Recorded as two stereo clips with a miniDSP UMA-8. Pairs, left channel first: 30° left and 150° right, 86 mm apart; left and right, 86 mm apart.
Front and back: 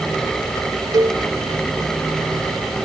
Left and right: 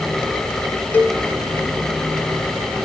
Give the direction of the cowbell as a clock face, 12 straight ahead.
7 o'clock.